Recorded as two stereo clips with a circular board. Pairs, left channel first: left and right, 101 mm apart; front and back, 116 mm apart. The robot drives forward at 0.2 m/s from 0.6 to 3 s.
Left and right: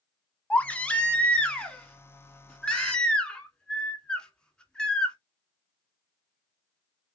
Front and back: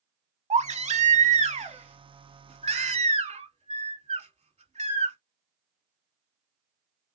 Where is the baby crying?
165° left, 0.7 m; by 5.2 s 170° left, 1.1 m.